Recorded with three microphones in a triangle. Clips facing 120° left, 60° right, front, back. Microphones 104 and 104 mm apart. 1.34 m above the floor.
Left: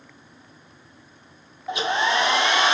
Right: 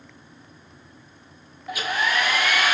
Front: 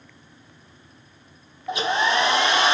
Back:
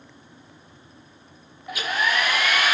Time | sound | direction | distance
1.7 | a hair dryer | 60° left | 0.6 m